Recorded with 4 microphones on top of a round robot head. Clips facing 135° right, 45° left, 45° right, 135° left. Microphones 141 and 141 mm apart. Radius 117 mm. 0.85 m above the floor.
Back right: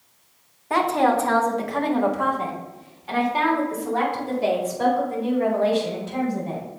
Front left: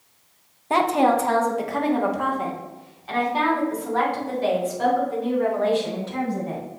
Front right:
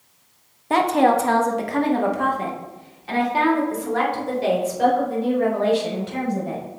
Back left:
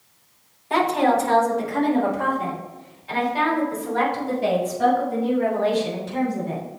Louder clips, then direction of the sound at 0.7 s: Front left 1 dB, front right 2 dB; 15° right.